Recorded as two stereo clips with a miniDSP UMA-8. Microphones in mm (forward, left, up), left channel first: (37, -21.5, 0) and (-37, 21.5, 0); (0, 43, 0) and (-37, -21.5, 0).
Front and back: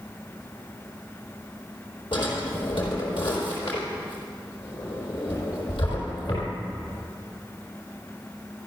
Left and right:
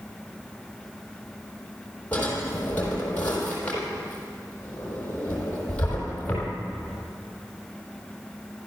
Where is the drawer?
10° right, 4 m.